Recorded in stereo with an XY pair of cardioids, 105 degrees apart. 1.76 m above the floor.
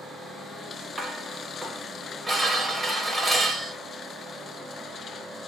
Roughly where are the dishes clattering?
Ahead.